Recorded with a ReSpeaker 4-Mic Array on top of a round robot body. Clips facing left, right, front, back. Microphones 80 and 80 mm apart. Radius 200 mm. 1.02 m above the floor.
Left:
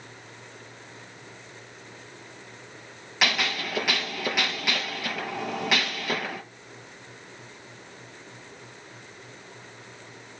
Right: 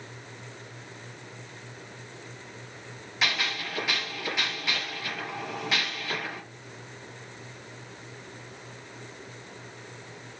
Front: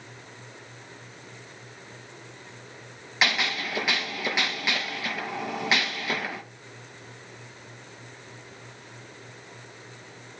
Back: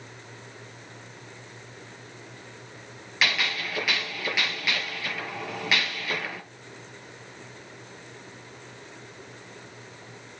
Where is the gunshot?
65° left, 5.5 m.